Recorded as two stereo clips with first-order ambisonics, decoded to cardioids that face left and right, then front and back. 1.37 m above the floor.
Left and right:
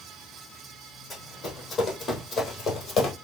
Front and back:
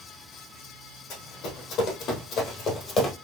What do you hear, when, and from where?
1.1 s running footsteps: 10° left, 2.5 m; by 3.1 s 40° left, 1.6 m